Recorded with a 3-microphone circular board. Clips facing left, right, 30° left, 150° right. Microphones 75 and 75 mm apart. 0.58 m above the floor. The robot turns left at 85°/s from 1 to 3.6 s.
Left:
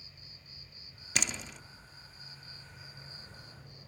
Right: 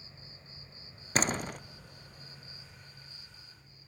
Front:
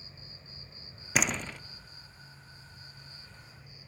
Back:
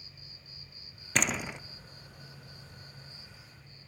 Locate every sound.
0.0 s an insect: 30° right, 1.2 m; by 3.9 s 110° left, 1.2 m
1.1 s a door slam: 50° right, 0.5 m; by 1.6 s 90° right, 0.5 m